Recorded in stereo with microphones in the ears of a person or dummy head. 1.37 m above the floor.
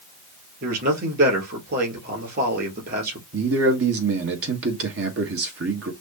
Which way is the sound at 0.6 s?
55° right (ahead or behind).